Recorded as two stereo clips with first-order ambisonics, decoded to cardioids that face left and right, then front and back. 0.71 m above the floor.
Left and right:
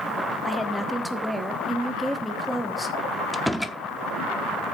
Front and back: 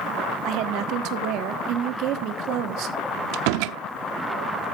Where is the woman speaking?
175° right, 1.1 m.